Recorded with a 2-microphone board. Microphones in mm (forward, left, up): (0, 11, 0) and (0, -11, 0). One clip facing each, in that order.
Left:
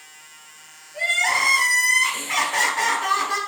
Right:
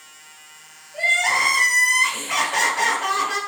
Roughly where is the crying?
Centre.